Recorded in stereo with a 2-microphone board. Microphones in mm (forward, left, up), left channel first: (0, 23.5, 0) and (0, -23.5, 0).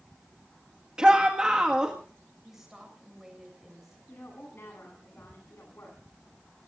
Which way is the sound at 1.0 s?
20° right (ahead or behind).